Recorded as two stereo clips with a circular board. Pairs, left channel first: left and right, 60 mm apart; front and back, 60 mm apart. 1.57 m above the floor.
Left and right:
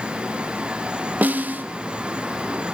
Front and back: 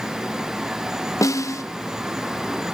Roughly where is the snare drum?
Ahead right.